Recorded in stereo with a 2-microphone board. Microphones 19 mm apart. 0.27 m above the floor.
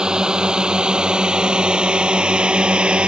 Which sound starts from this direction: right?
A drone, at 0.0 s.